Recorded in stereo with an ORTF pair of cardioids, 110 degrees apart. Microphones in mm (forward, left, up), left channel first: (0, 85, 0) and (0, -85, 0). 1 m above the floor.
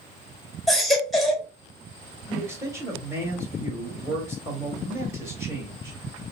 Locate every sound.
0.7 s a baby crying: straight ahead, 2 m
2.3 s a man speaking: 15° right, 3 m